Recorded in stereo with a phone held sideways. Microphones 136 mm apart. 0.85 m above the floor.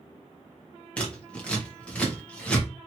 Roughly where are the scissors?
Centre.